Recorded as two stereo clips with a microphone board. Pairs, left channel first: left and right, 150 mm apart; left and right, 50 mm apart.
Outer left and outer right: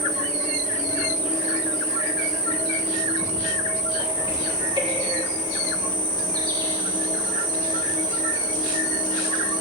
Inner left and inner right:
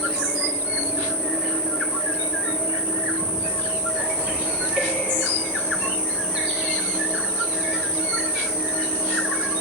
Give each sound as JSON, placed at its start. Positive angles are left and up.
{"t": 0.0, "sound": "an insect", "side_deg": -30, "distance_m": 3.5}